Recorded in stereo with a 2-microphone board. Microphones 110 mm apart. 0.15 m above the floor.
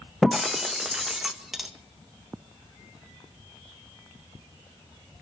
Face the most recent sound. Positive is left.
turn(degrees=0)  # may be behind; listen again after turning